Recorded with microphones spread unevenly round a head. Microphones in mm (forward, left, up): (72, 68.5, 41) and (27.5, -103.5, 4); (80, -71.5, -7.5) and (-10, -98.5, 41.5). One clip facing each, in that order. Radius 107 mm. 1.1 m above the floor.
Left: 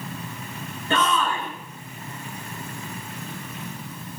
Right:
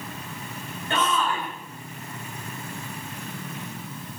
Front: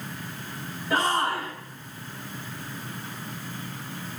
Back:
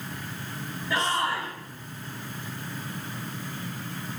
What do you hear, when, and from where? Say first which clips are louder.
0.9 s a shout: left 2 dB, front 3 dB; 95° left, 7 m